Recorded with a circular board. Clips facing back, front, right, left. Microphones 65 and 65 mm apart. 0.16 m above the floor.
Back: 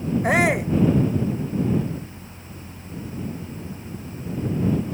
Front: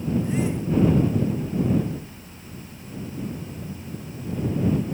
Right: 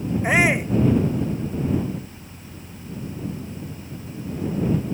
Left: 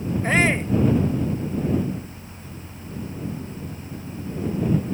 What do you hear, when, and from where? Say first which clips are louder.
0.2 s a shout: back 6 dB, right 1 dB; 165° right